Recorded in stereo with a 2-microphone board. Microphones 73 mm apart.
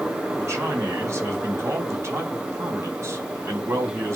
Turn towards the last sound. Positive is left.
turn(degrees=-45)  # may be behind; listen again after turning